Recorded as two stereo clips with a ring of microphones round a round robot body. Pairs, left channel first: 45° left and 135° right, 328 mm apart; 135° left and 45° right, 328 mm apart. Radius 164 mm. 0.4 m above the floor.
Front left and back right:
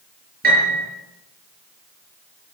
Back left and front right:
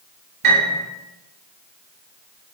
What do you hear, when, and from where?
0.4 s a piano: 70° right, 7 m